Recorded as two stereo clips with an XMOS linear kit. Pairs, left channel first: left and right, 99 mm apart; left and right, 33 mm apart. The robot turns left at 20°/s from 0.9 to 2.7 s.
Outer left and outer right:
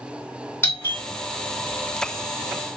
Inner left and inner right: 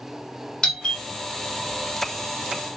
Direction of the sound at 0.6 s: 25° left (ahead or behind).